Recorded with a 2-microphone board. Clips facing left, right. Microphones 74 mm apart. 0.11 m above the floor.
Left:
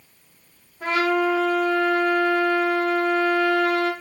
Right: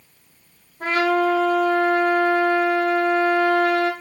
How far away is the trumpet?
About 3.5 m.